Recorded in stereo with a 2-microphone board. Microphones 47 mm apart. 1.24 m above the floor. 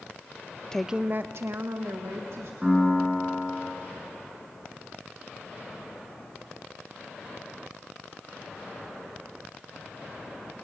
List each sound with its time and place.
0.7 s a woman speaking: 15° left (ahead or behind), 0.6 m; by 2.5 s 80° right, 3 m
2.6 s a piano: 20° right (ahead or behind), 8 m